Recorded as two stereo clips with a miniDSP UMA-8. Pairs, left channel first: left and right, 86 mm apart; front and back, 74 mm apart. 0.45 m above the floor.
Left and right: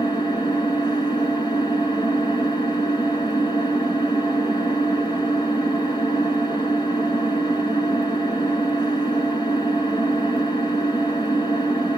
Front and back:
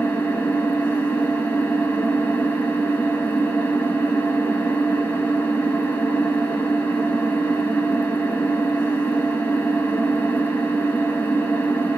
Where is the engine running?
65° left, 1.8 m.